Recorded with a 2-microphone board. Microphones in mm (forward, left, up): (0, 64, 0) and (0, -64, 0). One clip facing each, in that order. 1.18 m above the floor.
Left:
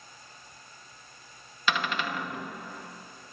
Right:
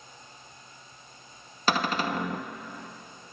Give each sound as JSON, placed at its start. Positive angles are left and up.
{"t": 1.7, "sound": "a cupboard door", "side_deg": -40, "distance_m": 0.6}